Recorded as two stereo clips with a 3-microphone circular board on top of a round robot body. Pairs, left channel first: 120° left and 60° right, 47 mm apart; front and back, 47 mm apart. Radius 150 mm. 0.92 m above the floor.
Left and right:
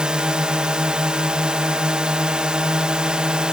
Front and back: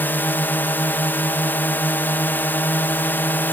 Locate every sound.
0.0 s a drone: 5° left